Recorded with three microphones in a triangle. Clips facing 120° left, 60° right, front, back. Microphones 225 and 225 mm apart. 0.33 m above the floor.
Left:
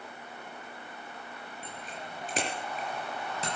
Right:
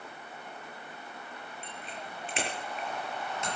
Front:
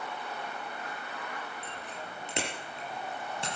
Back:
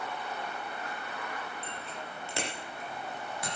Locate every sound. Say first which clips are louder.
1.6 s a bicycle bell: left 2 dB, even; 75° left, 4.5 m; by 3.5 s 65° left, 5.5 m